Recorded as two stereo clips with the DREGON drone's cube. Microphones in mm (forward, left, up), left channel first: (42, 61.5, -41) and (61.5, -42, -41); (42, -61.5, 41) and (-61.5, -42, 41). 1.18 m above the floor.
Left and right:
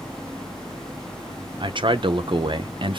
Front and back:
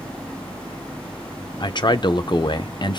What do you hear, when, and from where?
1.6 s a man speaking: 50° right, 0.6 m